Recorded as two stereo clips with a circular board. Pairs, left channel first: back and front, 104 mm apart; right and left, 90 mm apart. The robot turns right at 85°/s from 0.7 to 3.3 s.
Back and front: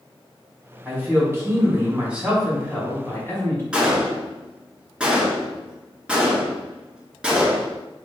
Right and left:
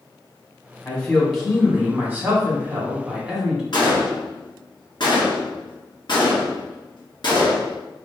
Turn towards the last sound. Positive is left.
turn(degrees=-80)